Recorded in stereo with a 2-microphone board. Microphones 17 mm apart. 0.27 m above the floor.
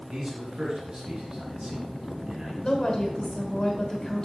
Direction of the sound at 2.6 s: 35° left (ahead or behind).